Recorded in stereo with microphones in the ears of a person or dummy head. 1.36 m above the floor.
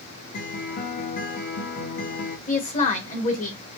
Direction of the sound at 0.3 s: 45° left (ahead or behind).